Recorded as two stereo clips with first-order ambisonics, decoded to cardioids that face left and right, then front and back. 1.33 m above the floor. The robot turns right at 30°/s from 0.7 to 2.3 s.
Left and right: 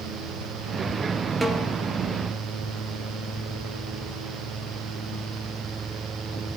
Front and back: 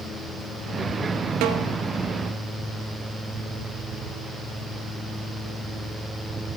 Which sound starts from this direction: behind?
A snare drum, at 1.4 s.